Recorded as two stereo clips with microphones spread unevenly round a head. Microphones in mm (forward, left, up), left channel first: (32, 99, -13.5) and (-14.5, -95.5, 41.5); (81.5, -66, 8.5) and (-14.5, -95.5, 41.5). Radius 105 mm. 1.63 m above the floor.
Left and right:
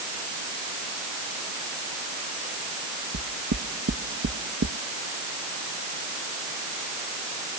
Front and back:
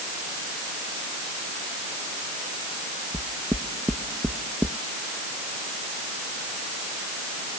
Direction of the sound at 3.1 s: 85° right.